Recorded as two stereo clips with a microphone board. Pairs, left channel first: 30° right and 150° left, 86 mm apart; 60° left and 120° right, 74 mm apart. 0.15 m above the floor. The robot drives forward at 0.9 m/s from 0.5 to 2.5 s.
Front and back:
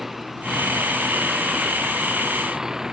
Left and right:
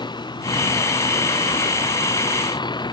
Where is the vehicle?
60° left; by 2.9 s 65° left.